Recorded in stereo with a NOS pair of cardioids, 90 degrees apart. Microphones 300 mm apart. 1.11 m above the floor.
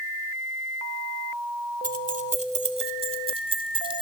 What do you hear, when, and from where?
1.8 s keys jangling: 25° right, 2.5 m; by 4.0 s 15° right, 3.5 m